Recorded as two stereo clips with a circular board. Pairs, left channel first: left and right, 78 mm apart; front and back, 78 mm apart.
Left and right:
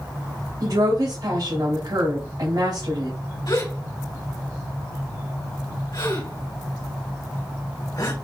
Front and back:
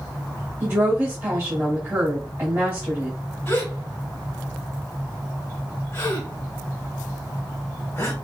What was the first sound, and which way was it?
A woman speaking, 110° right.